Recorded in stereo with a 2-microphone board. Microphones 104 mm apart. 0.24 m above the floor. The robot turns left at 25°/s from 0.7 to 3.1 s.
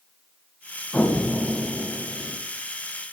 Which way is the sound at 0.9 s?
20° left.